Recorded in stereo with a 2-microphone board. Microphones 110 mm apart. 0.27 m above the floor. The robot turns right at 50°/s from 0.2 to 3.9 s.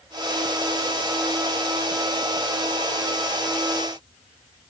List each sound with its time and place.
Only background noise.